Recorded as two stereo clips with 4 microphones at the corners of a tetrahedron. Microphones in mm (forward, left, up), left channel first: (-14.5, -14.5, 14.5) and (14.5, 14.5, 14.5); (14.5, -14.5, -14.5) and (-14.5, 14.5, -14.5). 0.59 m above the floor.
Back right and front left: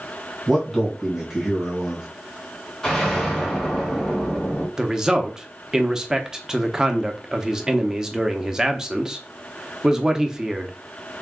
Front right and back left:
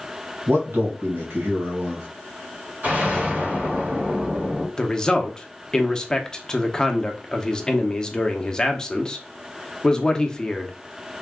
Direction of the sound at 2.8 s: 145° left.